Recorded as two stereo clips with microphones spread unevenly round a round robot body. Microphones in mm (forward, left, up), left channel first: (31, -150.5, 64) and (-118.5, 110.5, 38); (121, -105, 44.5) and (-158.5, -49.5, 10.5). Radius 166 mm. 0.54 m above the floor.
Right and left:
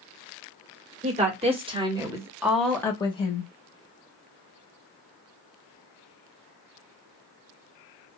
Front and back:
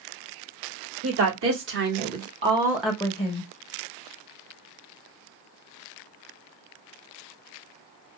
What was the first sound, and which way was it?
A woman speaking, straight behind.